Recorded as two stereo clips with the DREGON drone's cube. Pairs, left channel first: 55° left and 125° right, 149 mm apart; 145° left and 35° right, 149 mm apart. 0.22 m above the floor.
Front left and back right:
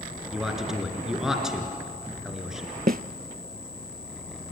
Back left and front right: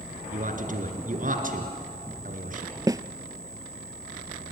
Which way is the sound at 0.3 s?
40° right.